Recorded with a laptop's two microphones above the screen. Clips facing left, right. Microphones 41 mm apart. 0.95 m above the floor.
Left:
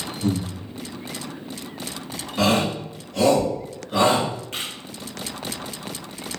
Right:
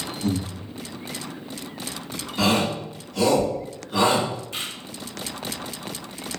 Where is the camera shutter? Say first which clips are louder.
Left 1 dB; 55° left (ahead or behind), 1.1 m.